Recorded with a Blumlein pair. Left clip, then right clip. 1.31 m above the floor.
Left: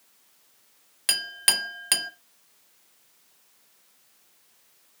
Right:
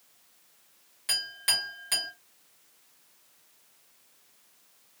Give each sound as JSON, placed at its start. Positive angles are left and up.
{"t": 1.1, "sound": "a clink", "azimuth_deg": 30, "distance_m": 0.9}